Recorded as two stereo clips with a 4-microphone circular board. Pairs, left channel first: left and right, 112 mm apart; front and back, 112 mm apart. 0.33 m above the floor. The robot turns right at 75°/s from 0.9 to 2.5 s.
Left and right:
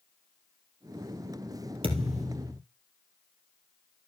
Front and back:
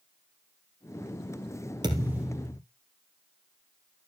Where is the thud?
130° right, 3 m; by 2.6 s 80° right, 3 m.